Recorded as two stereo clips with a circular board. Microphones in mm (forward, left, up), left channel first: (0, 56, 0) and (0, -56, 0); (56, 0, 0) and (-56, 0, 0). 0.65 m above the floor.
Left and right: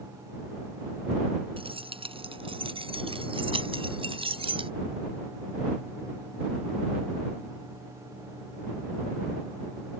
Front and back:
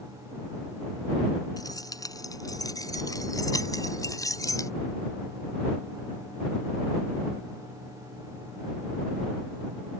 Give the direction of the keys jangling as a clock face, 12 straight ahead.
2 o'clock.